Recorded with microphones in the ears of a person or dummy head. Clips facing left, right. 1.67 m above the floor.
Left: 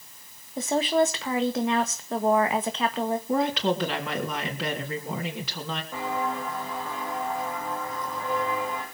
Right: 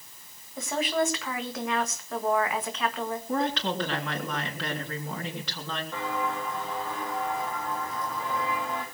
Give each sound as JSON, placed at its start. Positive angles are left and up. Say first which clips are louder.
{"t": 0.6, "sound": "a woman speaking", "louder": "left 5 dB", "side_deg": 30, "distance_m": 1.7}
{"t": 3.3, "sound": "a woman speaking", "louder": "left 3 dB", "side_deg": 10, "distance_m": 3.5}
{"t": 5.9, "sound": "footsteps", "louder": "left 2 dB", "side_deg": 15, "distance_m": 4.0}